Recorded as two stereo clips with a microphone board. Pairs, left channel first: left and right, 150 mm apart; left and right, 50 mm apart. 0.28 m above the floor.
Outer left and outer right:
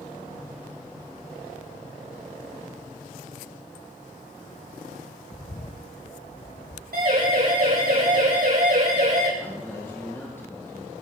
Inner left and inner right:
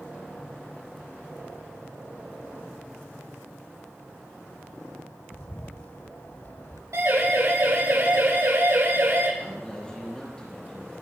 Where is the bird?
40° left (ahead or behind), 0.7 m.